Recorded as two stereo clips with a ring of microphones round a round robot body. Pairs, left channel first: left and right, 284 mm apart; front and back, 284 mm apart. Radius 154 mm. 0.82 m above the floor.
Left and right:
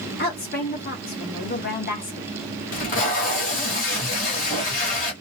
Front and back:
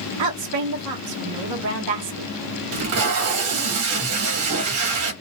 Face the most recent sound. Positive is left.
turn(degrees=150)